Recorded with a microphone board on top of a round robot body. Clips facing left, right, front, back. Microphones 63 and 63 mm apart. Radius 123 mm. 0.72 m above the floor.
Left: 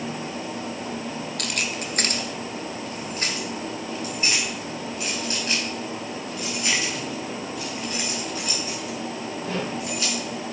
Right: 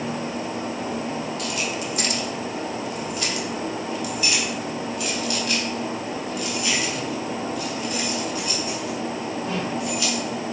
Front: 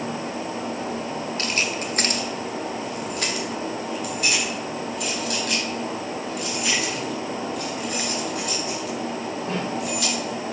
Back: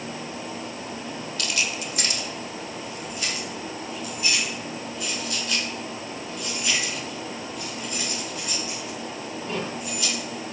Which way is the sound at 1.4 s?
60° left.